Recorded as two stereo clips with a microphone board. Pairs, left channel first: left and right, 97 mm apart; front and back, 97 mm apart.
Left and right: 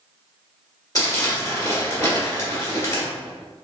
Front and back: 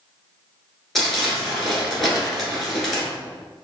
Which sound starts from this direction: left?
Crumpling, at 0.9 s.